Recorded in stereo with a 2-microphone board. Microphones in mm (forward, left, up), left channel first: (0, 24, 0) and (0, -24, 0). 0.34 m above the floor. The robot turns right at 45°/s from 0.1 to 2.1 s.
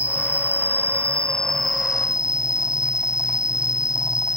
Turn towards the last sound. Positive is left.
turn(degrees=-160)